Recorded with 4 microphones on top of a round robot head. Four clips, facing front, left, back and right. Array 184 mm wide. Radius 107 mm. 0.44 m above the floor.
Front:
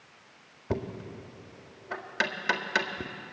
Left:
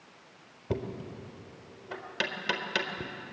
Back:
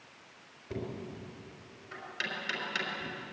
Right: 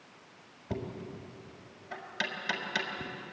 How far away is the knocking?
About 1.7 m.